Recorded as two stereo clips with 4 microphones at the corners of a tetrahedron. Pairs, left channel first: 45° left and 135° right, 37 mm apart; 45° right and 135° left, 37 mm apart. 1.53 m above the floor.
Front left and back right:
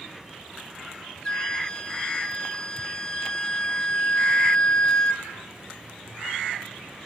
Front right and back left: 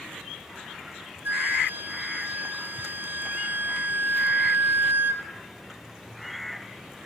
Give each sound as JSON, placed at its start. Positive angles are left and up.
{"t": 1.2, "sound": "a flute", "azimuth_deg": 110, "distance_m": 1.5}